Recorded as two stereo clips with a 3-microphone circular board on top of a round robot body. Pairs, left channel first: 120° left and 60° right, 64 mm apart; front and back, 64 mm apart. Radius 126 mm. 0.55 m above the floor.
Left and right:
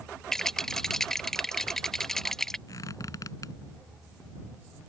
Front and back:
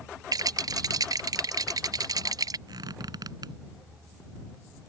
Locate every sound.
0.3 s a rattle: 155° right
2.7 s a squeak: 155° left